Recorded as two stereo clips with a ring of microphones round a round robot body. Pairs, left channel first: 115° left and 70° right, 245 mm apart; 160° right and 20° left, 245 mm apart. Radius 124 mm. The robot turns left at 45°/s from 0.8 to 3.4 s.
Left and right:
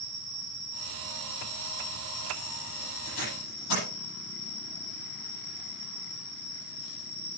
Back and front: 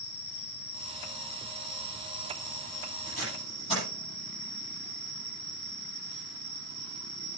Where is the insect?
125° right, 4.5 m; by 7.4 s 115° left, 4.5 m.